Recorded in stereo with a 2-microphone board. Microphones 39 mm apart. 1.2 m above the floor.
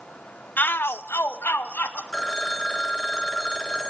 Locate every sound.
0.6 s a shout: 50° left (ahead or behind), 1.0 m; by 2.0 s 60° left (ahead or behind), 2.5 m
2.1 s a phone ringing: 20° left (ahead or behind), 0.9 m